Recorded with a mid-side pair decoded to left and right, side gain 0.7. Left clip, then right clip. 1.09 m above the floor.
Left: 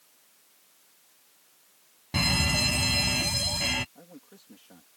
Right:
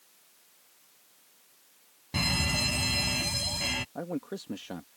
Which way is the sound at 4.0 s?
60° right.